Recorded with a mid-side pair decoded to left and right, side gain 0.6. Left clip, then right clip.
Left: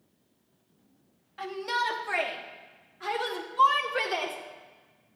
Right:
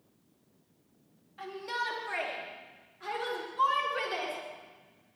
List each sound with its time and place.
1.4 s a shout: 40° left, 3 m; by 4.3 s 35° left, 4.5 m